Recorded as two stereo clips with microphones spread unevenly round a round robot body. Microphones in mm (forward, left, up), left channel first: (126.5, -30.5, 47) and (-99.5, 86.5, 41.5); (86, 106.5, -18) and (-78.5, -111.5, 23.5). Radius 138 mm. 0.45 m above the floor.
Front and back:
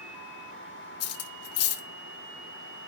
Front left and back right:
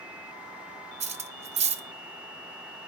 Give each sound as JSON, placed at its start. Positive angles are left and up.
{"t": 1.0, "sound": "cutlery clinking", "azimuth_deg": -55, "distance_m": 1.1}